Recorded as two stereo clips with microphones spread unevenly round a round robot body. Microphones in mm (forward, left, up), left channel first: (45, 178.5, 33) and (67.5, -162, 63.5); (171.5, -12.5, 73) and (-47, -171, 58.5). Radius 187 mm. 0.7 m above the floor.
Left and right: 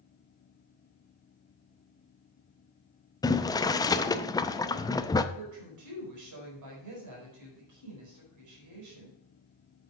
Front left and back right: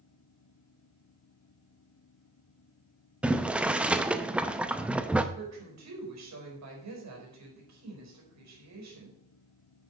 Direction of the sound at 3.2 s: 145° left.